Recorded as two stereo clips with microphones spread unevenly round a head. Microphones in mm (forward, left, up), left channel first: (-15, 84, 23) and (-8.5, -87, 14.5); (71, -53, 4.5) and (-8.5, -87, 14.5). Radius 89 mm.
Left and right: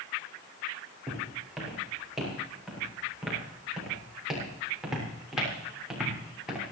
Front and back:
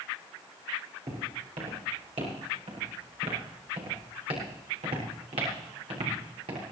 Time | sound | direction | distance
1.1 | footsteps | 175° right | 9.5 m